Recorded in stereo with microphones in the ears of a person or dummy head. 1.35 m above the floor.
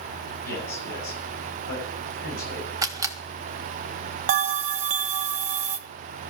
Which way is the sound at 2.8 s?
20° right (ahead or behind).